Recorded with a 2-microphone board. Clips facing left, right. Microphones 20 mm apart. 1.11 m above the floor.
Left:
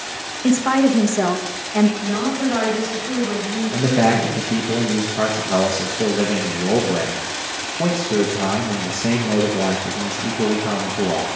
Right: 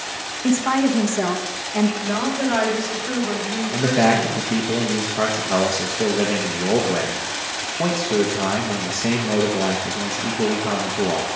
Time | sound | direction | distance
0.4 | a woman speaking | 20° left (ahead or behind) | 1.1 m
2.0 | a woman speaking | 35° right (ahead or behind) | 4 m
3.7 | a man speaking | 5° right (ahead or behind) | 1.0 m